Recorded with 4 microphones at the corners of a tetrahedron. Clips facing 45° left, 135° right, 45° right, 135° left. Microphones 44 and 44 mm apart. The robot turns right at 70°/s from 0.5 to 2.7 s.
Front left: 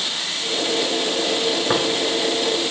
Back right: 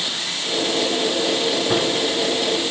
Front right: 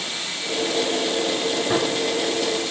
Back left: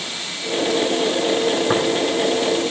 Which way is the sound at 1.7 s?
85° left.